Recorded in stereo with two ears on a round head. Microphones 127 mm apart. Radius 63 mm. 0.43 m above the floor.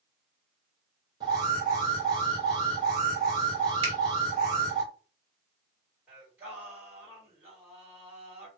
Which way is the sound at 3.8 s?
45° right (ahead or behind).